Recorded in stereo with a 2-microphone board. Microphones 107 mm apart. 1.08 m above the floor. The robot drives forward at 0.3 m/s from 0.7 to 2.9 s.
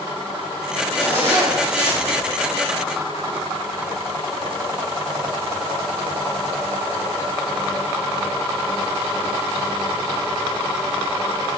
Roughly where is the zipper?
Left.